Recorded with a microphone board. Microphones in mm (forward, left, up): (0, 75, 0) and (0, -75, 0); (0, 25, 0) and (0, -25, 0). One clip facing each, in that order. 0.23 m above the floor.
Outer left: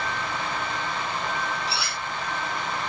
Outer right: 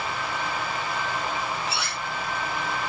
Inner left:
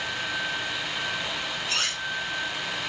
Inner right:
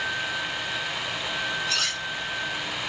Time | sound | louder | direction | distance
1.7 | cutlery clinking | even, inner right 1 dB | 35° left (ahead or behind) | 6 m